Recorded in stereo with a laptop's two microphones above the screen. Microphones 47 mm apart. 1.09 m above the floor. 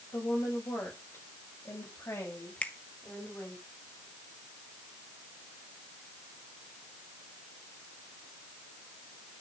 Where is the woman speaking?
75° left (ahead or behind), 6.5 m; by 3.6 s 65° left (ahead or behind), 6.5 m.